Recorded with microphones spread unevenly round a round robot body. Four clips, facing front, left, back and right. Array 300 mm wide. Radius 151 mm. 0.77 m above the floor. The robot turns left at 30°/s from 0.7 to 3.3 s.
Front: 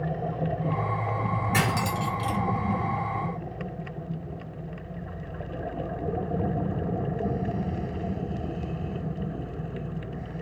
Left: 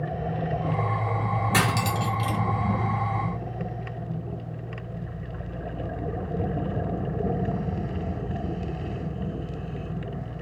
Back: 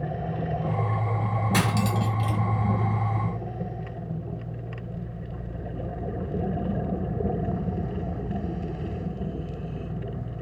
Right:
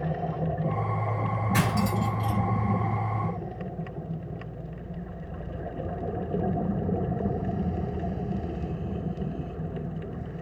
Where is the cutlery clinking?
105° left, 1.4 m; by 2.4 s 80° left, 1.4 m.